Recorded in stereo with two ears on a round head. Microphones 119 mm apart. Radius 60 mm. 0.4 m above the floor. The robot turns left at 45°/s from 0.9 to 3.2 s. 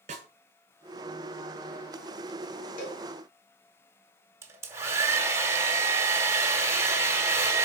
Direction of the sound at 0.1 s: 55° right (ahead or behind).